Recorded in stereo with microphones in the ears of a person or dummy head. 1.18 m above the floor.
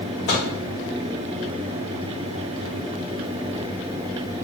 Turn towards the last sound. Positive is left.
turn(degrees=50)  # may be behind; listen again after turning